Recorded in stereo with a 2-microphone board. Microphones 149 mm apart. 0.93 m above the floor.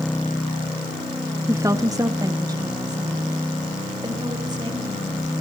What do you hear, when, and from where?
1.5 s a woman speaking: 20° right (ahead or behind), 0.7 m; by 5.4 s 30° right (ahead or behind), 4 m